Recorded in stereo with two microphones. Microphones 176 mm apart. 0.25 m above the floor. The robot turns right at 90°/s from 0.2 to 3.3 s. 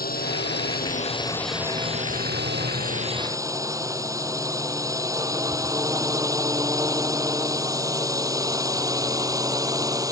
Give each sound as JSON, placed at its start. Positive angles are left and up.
{"t": 0.0, "sound": "a drone", "side_deg": 60}